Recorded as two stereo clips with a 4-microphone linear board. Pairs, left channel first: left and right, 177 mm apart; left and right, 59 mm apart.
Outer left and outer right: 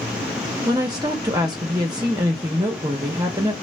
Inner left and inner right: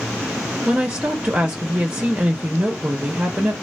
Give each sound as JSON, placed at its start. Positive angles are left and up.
{"t": 0.7, "sound": "a woman speaking", "side_deg": -20, "distance_m": 0.7}